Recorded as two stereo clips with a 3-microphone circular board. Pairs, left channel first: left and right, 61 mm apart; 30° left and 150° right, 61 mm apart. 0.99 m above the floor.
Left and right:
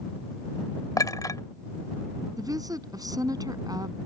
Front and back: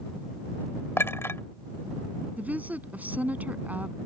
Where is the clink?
75° left.